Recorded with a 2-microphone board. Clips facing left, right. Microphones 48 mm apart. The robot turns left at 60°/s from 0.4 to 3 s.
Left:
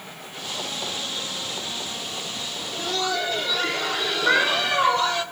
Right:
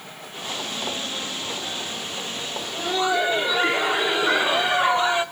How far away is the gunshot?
I don't hear a gunshot.